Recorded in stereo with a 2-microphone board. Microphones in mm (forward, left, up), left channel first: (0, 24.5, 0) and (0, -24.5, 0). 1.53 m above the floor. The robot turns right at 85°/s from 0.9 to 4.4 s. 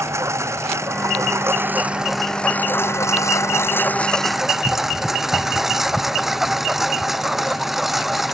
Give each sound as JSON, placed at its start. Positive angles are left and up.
{"t": 0.0, "sound": "a lawn mower", "side_deg": -70}